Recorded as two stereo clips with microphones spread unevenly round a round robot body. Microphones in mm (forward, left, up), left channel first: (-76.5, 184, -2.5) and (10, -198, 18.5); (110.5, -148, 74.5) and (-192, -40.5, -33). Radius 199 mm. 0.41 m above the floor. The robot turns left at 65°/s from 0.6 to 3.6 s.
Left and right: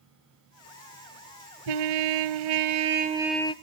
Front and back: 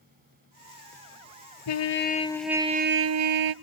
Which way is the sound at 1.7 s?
60° right.